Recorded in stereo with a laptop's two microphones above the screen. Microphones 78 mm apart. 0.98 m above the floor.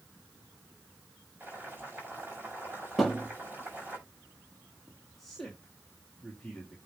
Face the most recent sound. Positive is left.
turn(degrees=5)  # may be behind; listen again after turning